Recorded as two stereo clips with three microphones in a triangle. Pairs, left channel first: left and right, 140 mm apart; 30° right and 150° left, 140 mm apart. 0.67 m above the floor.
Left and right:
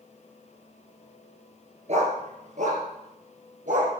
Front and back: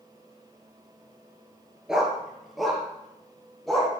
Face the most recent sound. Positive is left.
turn(degrees=-120)